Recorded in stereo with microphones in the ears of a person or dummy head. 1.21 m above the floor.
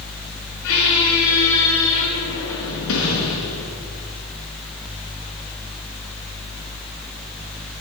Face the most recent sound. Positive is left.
turn(degrees=80)